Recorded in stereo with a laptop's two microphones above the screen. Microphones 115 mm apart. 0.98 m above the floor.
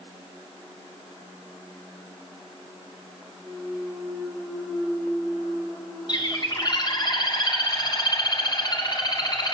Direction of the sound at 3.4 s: 5° left (ahead or behind).